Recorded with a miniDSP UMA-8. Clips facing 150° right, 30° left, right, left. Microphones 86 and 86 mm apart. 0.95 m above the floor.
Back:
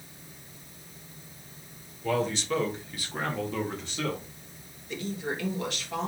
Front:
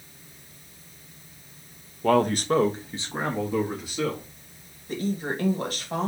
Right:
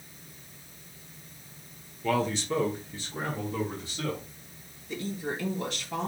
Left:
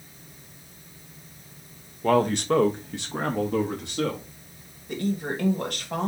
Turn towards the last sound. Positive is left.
turn(degrees=70)